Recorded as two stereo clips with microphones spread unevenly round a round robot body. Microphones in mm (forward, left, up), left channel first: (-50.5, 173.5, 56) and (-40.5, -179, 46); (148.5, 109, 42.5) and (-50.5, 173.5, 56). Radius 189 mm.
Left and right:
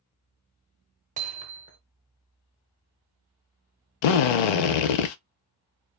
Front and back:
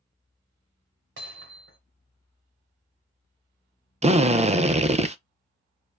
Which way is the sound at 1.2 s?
155° right.